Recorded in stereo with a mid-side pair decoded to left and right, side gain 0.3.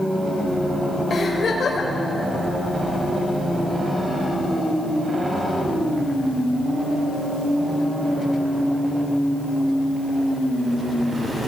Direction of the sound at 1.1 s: 65° left.